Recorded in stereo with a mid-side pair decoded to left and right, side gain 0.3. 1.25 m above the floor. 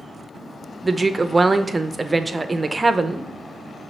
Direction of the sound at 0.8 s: 35° right.